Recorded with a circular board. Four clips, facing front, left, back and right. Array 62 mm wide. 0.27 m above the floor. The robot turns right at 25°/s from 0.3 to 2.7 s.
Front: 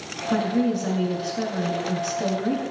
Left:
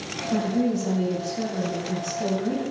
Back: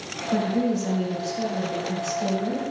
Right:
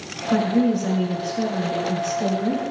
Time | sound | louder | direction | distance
0.3 | a woman speaking | right 5 dB, front 1 dB | 45° right | 2.5 m